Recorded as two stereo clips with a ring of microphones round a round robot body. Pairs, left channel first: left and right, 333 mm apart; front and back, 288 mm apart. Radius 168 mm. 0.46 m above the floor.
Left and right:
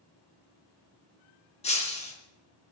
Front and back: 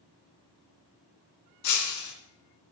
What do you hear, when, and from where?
1.6 s breaking glass: 20° left, 3 m